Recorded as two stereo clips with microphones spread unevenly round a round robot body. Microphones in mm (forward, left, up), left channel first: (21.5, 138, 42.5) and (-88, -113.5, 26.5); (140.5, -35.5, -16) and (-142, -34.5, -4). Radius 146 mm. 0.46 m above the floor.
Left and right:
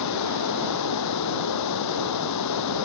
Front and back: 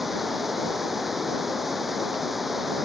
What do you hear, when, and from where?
0.0 s running water: 90° left